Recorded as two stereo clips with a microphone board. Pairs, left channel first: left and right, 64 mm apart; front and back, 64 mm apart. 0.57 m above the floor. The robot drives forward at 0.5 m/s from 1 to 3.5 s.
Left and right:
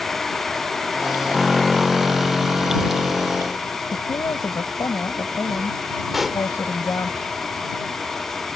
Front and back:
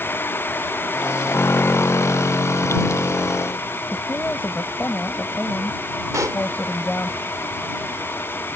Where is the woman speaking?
60° left.